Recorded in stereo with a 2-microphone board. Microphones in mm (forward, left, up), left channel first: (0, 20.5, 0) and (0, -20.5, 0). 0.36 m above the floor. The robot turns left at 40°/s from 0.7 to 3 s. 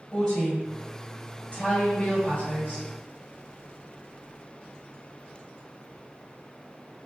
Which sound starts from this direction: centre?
A woman speaking, at 0.1 s.